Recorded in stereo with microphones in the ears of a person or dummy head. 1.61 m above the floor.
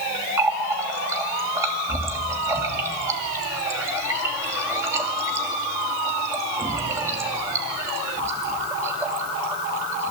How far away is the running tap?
About 2 m.